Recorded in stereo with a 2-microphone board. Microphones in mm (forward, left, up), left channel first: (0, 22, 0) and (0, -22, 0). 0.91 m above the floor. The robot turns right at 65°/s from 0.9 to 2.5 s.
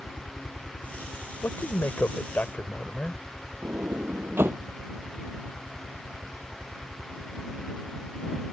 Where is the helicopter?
45° left (ahead or behind); by 8.5 s 55° right (ahead or behind).